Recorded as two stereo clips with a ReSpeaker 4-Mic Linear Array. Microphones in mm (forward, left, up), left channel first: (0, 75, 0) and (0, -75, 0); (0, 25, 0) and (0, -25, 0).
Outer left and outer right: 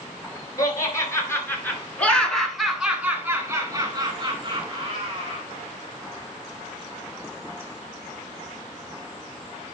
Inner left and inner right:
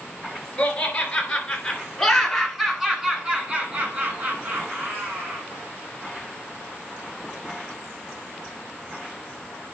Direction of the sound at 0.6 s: 25° left (ahead or behind).